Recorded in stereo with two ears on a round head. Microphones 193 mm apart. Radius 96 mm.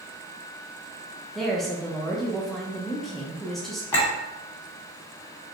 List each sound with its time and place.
1.4 s a woman speaking: centre (ahead or behind), 0.5 m
3.9 s a clink: 15° left (ahead or behind), 1.5 m